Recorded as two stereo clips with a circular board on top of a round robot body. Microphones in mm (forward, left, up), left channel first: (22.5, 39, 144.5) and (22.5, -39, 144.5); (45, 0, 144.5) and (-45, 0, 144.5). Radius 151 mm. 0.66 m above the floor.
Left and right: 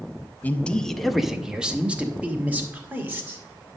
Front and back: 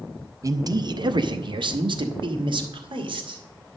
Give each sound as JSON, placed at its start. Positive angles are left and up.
{"t": 0.4, "sound": "a man speaking", "azimuth_deg": 150, "distance_m": 0.7}